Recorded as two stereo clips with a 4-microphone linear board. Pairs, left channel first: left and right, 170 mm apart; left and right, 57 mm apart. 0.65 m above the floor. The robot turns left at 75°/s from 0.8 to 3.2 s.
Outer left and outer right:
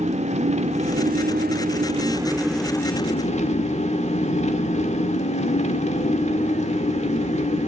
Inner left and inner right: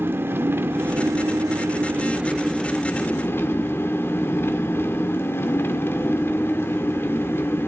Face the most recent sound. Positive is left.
turn(degrees=130)